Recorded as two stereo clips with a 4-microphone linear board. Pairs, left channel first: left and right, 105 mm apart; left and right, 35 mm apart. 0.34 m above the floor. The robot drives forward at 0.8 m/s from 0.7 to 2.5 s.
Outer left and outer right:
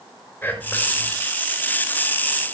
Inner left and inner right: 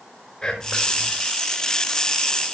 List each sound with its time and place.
0.4 s whispering: 20° left (ahead or behind), 4.5 m